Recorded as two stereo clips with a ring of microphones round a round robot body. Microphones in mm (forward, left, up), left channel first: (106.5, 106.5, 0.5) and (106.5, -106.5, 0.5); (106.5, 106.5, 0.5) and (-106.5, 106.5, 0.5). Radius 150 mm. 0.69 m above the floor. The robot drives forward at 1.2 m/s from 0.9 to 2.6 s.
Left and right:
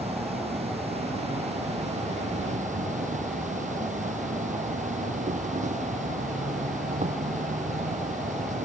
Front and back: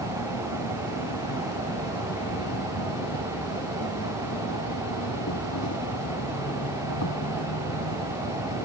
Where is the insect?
30° right; by 8.7 s 35° right.